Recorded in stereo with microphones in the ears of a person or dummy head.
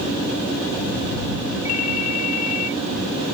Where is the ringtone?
90° left.